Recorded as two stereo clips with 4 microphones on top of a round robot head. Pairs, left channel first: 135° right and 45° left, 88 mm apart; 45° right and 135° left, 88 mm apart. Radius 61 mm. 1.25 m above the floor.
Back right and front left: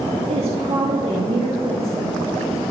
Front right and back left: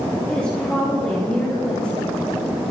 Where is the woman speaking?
35° left, 3.5 m.